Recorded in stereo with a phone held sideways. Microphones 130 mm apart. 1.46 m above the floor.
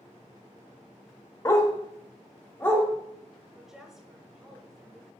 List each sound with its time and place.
1.4 s a dog barking: 25° left (ahead or behind), 0.9 m; by 2.9 s 20° left (ahead or behind), 1.8 m
3.5 s a woman speaking: 5° right (ahead or behind), 1.5 m